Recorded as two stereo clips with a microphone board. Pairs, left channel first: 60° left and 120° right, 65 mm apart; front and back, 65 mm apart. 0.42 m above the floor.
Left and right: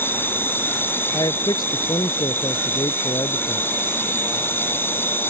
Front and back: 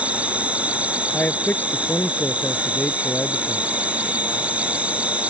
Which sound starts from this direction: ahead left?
A man speaking, at 1.1 s.